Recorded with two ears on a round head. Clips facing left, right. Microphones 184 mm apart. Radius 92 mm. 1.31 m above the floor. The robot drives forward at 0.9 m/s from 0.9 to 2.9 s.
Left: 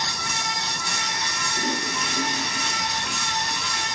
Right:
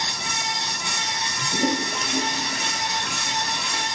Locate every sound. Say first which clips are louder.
1.4 s a toilet flushing: right 6 dB; 50° right (ahead or behind), 4.5 m; by 3.9 s 40° right (ahead or behind), 5.5 m